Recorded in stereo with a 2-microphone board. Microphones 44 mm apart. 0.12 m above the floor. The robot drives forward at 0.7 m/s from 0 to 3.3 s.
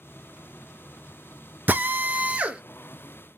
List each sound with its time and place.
1.7 s a drill: 40° right (ahead or behind), 0.6 m; by 2.6 s 25° right (ahead or behind), 0.9 m